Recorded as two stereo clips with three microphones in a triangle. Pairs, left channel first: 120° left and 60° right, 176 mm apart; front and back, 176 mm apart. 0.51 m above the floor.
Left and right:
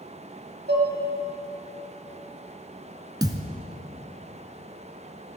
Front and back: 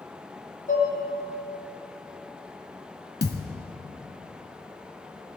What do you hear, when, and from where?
0.7 s dishes clattering: 40° right, 2 m
3.2 s a thud: 5° left, 0.9 m